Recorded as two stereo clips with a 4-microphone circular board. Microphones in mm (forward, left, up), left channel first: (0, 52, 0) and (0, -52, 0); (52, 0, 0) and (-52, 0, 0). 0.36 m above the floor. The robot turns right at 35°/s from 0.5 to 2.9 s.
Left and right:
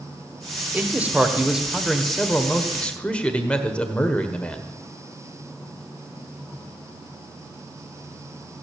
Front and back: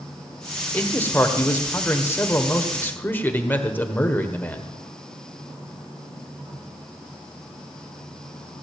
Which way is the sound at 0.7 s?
45° right.